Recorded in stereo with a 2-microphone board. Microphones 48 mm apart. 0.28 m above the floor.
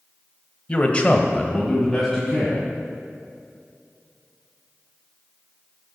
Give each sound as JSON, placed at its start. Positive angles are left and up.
{"t": 0.7, "sound": "a man speaking", "side_deg": 25, "distance_m": 1.2}